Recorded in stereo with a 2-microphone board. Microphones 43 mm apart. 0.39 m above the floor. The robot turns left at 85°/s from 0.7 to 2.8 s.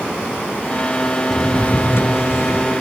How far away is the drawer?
About 1.3 m.